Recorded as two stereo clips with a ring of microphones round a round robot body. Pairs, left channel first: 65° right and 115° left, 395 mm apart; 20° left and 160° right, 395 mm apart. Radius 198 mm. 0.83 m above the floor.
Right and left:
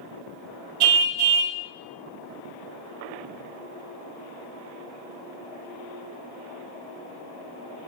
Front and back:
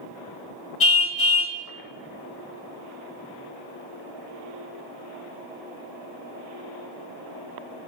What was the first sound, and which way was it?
A car horn, 80° left.